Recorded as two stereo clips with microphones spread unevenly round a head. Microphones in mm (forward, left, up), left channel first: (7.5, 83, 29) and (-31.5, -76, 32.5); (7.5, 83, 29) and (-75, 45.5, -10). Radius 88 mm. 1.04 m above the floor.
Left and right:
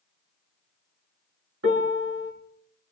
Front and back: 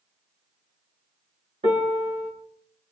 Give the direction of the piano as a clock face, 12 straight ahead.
4 o'clock.